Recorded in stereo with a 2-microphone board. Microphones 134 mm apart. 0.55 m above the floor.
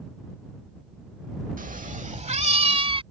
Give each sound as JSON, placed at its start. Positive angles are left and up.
{"t": 1.6, "sound": "a cat meowing", "side_deg": -85}